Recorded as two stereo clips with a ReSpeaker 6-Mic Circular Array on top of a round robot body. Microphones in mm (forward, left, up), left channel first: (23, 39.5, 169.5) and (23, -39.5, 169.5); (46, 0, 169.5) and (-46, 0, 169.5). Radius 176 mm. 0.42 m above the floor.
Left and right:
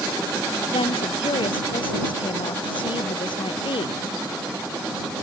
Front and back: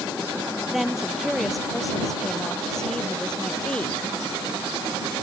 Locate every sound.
0.7 s a woman speaking: 95° left; by 4.0 s 75° left